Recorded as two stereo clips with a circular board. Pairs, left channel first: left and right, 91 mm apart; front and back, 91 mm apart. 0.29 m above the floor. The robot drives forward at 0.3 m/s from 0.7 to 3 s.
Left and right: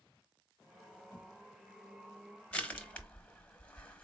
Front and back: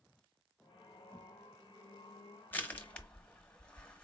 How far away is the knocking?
About 1.7 m.